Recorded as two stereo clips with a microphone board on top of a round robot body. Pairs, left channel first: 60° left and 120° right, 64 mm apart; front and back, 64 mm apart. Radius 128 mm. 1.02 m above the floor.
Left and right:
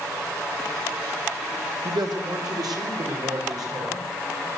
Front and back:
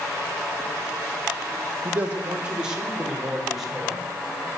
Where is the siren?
No siren in this recording.